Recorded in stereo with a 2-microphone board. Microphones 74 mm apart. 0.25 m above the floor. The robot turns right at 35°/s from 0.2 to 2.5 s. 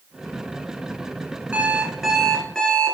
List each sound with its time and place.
1.5 s an alarm clock: 20° right, 1.7 m; by 3.0 s 10° left, 1.7 m